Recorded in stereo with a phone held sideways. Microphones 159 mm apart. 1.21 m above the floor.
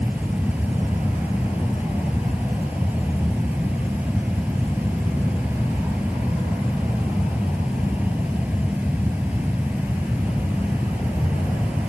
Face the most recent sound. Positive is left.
turn(degrees=-10)  # may be behind; listen again after turning